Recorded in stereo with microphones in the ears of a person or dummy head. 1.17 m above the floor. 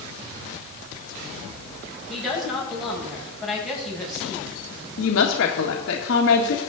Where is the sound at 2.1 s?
5° right (ahead or behind), 6.5 m.